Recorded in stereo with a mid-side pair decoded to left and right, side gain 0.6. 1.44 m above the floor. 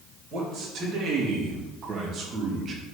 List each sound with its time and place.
0.3 s a man speaking: 50° right, 3.5 m; by 2.8 s 40° right, 1.8 m